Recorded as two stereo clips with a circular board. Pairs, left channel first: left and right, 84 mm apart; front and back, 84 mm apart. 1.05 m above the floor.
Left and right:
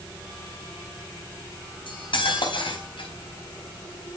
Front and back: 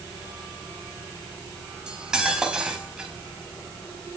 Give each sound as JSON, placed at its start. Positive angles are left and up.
{"t": 1.9, "sound": "cutlery clinking", "azimuth_deg": 100, "distance_m": 4.0}